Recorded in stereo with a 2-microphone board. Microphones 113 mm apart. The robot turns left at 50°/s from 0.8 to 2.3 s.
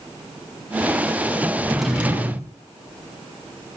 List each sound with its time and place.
1.7 s a drawer: 5° left, 2 m; by 2.5 s 25° right, 2 m